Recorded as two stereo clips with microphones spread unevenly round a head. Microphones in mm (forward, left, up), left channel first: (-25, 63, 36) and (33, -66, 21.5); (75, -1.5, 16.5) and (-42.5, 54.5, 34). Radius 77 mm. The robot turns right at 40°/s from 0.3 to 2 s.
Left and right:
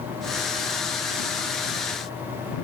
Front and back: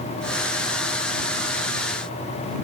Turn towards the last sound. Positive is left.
No sound to turn to.